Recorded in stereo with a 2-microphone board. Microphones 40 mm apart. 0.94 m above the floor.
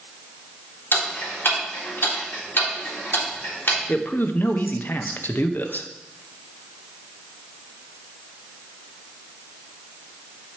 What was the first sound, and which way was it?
Ticking, 60° left (ahead or behind).